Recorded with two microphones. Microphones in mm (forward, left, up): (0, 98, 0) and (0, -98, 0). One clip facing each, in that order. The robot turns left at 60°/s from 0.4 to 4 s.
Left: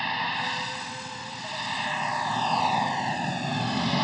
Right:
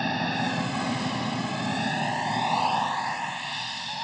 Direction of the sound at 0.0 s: 50° right.